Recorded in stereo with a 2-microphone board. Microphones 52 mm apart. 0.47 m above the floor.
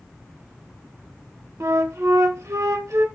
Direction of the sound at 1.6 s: 80° right.